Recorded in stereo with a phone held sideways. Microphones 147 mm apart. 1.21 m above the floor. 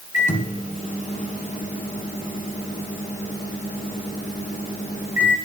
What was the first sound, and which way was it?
A microwave, 55° left (ahead or behind).